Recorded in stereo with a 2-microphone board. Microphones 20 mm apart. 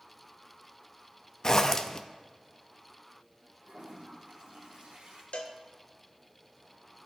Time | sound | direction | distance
1.4 | a zipper | 30° left (ahead or behind) | 0.5 m
3.6 | a toilet flushing | 75° right (ahead or behind) | 3.5 m
5.3 | a cowbell | 65° left (ahead or behind) | 0.8 m